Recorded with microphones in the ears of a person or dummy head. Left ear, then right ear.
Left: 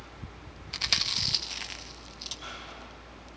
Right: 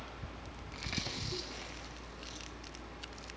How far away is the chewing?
About 1.3 m.